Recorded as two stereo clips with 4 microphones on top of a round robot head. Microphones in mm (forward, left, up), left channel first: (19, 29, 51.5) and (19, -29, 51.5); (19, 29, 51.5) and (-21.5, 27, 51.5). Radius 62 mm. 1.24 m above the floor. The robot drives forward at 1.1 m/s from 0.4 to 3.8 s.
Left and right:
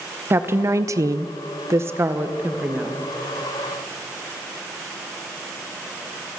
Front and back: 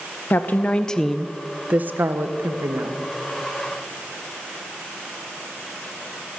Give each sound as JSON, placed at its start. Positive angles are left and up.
{"t": 0.3, "sound": "a woman speaking", "azimuth_deg": -45, "distance_m": 1.2}